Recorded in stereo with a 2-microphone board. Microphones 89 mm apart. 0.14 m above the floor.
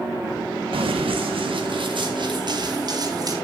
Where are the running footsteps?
80° right, 1.6 m; by 3.3 s 45° right (ahead or behind), 3 m.